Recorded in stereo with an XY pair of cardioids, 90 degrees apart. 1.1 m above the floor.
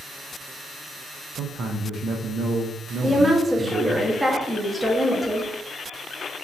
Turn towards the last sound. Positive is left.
turn(degrees=-5)